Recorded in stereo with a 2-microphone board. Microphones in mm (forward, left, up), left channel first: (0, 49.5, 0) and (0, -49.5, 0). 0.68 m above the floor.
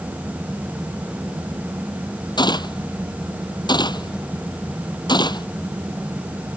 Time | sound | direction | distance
2.4 | a gunshot | 45° left (ahead or behind) | ?